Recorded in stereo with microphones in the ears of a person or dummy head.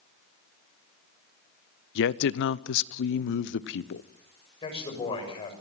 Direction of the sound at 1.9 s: 60° left (ahead or behind).